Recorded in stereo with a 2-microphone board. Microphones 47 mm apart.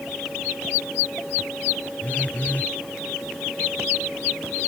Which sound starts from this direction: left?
A phone buzzing, at 2.0 s.